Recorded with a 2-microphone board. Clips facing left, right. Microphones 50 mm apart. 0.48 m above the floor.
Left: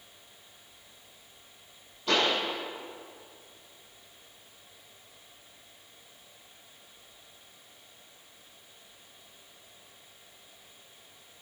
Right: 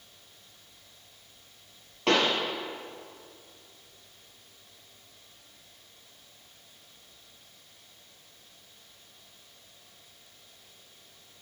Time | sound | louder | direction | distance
2.1 | a pop | right 2 dB | 80° right | 4.5 m